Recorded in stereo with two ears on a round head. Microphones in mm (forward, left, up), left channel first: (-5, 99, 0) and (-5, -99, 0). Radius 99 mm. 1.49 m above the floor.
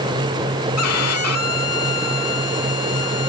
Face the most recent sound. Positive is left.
turn(degrees=75)  # may be behind; listen again after turning